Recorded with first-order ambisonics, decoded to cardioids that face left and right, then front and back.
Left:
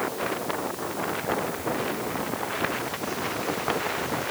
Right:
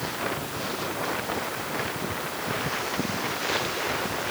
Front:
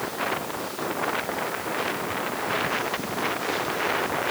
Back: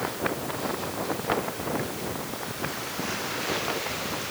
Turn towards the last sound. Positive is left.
No sound to turn to.